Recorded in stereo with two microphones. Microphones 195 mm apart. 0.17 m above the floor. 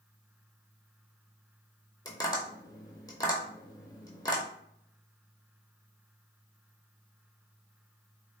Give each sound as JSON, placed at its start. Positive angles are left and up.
{"t": 2.0, "sound": "tapping", "side_deg": 20, "distance_m": 0.8}